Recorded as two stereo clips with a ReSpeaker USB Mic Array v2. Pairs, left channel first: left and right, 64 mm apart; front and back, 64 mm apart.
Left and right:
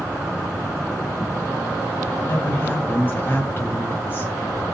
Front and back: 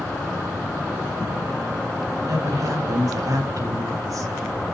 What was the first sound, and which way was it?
A woman speaking, 150° left.